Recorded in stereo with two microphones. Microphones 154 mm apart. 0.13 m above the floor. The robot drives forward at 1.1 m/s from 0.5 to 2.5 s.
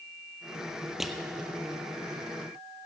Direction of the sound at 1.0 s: Centre (ahead or behind).